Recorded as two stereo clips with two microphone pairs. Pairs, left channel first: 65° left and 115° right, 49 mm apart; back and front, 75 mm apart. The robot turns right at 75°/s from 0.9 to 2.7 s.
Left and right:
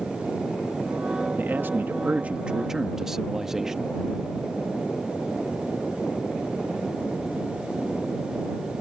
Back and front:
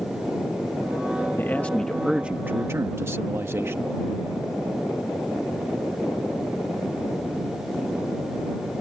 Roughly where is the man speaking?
Behind right.